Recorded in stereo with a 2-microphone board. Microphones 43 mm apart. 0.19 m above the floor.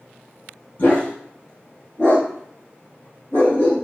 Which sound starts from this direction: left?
A dog barking, at 0.8 s.